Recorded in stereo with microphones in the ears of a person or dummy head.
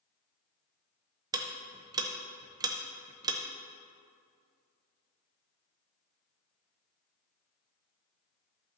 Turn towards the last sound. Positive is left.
turn(degrees=-20)  # may be behind; listen again after turning